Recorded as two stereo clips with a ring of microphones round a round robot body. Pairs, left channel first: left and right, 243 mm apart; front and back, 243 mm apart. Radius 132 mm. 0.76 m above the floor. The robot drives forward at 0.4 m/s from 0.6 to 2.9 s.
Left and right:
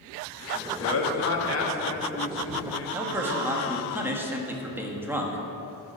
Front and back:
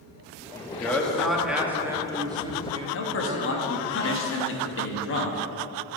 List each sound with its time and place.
0.5 s a man speaking: 80° left, 1.5 m; by 3.8 s 120° left, 1.6 m
2.9 s a man speaking: 10° right, 1.3 m